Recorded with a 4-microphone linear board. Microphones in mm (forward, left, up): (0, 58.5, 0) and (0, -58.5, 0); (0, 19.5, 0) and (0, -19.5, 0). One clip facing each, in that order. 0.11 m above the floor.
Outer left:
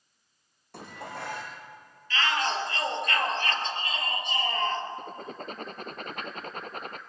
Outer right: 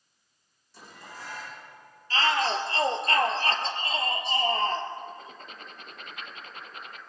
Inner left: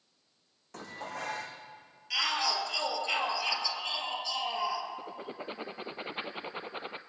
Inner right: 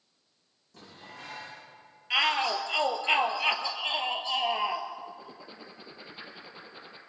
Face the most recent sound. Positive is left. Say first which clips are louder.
# outer left 3 dB, inner left 2 dB
turn(degrees=45)  # may be behind; listen again after turning